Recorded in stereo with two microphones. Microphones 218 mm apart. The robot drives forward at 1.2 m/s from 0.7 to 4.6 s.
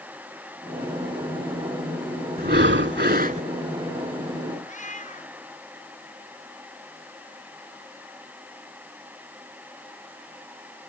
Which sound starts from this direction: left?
A cat meowing, at 4.7 s.